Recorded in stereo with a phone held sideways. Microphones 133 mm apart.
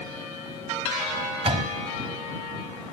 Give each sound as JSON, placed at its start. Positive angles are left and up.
{"t": 1.4, "sound": "a door slam", "side_deg": -45}